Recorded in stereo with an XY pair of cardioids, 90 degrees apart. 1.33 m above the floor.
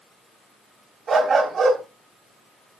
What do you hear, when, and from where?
1.1 s a dog barking: 60° right, 3.5 m